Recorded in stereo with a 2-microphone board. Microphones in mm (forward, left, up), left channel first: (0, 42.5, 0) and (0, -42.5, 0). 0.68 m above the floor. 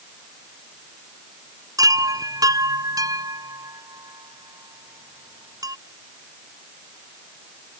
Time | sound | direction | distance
1.8 | a chime | 50° right (ahead or behind) | ?